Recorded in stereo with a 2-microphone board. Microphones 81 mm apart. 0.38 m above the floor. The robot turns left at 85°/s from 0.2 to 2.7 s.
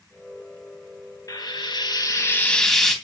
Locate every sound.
1.3 s frying: 125° left, 3 m; by 3.0 s 5° left, 3 m